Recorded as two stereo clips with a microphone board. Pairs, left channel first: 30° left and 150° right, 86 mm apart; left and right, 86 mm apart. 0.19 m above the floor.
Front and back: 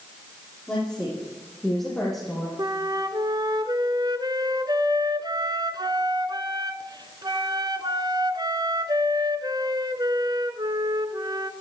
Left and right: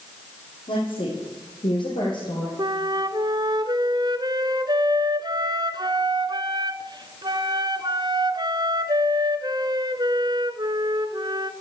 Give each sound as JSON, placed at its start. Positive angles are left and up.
{"t": 0.7, "sound": "a woman speaking", "azimuth_deg": 110, "distance_m": 7.0}
{"t": 2.6, "sound": "a flute", "azimuth_deg": -115, "distance_m": 1.0}